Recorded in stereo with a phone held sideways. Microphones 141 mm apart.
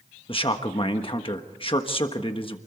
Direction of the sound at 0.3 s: 40° left (ahead or behind).